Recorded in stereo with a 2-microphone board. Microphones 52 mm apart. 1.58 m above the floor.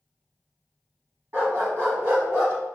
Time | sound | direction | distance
1.3 | a dog barking | 50° right (ahead or behind) | 1.8 m